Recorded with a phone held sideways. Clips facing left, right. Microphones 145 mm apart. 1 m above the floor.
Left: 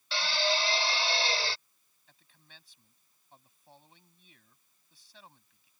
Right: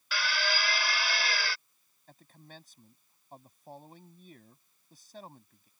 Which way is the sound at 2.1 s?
50° right (ahead or behind).